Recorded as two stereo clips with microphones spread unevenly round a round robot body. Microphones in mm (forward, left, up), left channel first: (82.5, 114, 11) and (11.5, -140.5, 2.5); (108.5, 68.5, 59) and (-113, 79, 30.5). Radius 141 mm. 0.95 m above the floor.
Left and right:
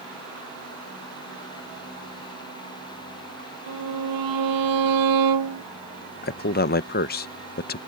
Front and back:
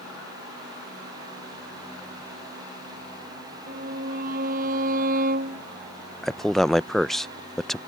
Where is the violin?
120° right.